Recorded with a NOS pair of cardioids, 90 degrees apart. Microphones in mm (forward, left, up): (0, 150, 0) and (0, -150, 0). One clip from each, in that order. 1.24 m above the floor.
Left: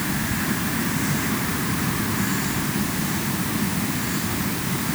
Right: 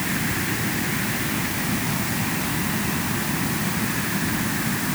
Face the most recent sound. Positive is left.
No sound to turn to.